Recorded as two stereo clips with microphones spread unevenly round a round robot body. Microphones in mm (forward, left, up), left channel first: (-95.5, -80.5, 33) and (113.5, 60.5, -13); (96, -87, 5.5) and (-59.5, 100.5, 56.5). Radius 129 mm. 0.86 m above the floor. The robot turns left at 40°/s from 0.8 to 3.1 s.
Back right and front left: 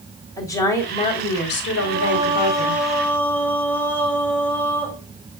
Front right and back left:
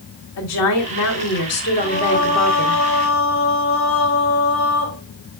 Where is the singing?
5° right, 2 m; by 5.0 s 60° right, 2 m.